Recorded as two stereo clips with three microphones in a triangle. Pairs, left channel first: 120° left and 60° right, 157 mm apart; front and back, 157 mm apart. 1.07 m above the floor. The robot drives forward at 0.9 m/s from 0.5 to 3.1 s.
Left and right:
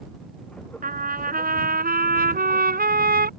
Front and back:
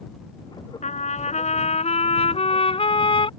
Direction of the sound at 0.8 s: 40° right.